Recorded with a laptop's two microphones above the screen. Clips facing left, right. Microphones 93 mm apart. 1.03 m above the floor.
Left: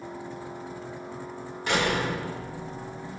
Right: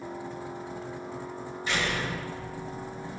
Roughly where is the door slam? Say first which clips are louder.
Left 5 dB; left.